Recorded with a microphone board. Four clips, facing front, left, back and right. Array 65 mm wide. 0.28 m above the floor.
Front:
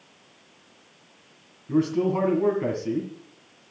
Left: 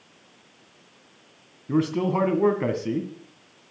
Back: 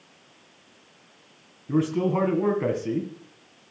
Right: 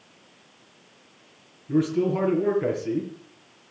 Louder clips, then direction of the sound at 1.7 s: Even, front 1 dB; 105° left.